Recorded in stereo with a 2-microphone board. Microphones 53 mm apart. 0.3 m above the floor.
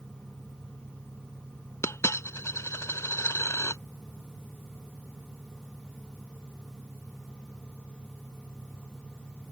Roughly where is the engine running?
Right.